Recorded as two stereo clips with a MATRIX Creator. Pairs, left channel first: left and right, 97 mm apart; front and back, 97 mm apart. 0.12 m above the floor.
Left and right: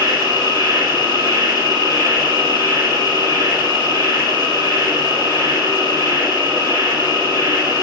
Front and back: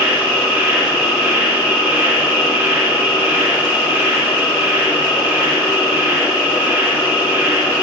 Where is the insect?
115° right, 2.0 m.